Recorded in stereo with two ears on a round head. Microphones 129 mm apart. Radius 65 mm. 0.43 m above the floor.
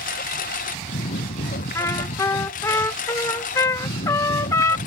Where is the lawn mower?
55° left (ahead or behind).